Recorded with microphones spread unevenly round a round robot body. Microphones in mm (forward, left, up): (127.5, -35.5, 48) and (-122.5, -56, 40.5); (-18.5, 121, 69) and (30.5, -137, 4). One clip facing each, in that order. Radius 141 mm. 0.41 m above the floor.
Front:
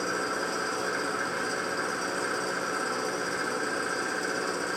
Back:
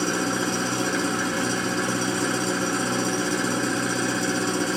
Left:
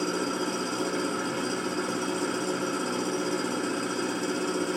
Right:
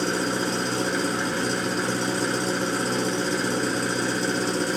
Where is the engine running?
135° right, 1.3 m.